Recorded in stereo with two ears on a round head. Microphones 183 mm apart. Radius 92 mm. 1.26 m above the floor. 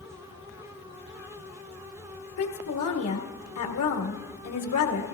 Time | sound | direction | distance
2.4 | a woman speaking | 85° left | 1.7 m